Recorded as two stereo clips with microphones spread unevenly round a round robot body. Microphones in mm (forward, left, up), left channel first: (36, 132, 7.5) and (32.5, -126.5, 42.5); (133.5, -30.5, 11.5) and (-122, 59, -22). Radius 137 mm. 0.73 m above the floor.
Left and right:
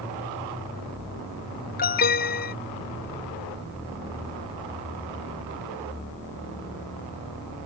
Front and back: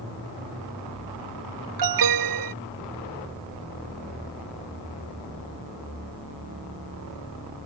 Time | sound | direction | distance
1.8 | an alarm | 150° left | ?